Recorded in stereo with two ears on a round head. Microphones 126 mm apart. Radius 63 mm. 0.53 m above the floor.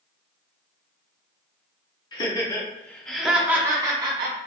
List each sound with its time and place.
2.1 s laughter: 30° left (ahead or behind), 1.1 m; by 4.4 s 40° right (ahead or behind), 1.0 m